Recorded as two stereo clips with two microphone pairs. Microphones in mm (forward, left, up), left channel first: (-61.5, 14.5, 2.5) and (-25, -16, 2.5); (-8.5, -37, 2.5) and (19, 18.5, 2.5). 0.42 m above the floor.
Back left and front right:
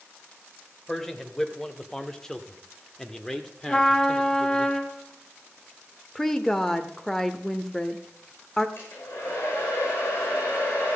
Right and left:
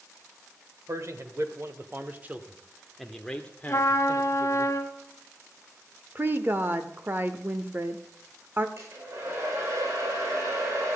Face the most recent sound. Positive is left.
turn(degrees=100)